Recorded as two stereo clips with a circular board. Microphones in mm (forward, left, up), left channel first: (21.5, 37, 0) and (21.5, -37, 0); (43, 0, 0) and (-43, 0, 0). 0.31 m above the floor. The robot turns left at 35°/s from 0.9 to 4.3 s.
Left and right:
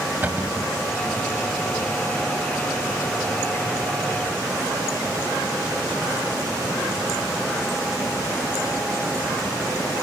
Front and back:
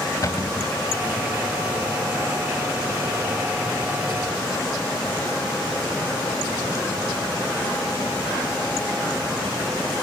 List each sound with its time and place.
0.2 s a cupboard door: 30° right, 1.5 m